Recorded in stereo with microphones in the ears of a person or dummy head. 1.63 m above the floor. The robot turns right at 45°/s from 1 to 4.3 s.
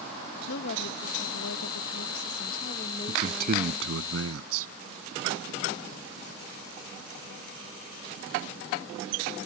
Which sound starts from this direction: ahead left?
A woman speaking, at 0.5 s.